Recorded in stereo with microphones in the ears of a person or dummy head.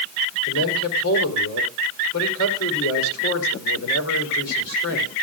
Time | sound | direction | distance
0.5 | a man speaking | 75° left (ahead or behind) | 4.5 m